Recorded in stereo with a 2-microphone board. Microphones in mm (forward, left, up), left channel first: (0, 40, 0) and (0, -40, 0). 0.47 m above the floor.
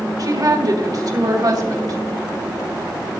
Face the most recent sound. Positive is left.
turn(degrees=-55)  # may be behind; listen again after turning